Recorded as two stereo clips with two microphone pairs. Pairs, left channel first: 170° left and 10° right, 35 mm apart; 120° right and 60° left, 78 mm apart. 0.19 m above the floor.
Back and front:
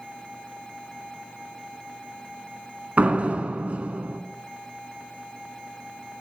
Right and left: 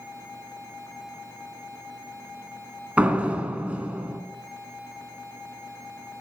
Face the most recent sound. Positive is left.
turn(degrees=-5)